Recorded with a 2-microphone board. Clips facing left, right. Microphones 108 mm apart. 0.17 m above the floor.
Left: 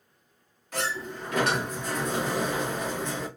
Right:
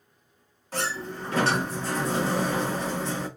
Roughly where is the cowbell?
I don't hear a cowbell.